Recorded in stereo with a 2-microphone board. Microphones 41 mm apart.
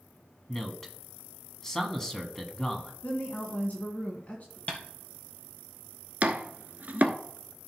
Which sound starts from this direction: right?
Chopping, at 6.2 s.